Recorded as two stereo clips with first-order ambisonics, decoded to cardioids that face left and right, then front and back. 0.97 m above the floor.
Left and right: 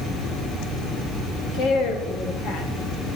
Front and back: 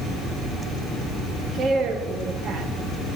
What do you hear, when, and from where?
1.5 s a woman speaking: 120° left, 1.7 m